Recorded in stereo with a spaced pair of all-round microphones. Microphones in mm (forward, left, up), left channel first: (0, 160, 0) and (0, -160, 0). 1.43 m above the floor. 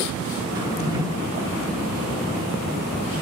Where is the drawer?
10° right (ahead or behind), 1.5 m.